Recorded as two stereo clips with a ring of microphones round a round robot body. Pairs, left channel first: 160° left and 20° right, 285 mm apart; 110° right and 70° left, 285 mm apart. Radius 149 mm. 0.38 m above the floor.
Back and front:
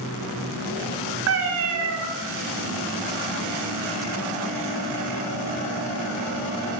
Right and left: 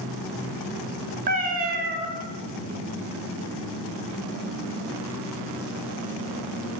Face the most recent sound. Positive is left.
turn(degrees=10)